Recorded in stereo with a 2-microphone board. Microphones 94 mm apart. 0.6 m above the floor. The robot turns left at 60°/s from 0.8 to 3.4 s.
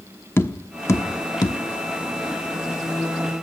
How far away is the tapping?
About 1.0 m.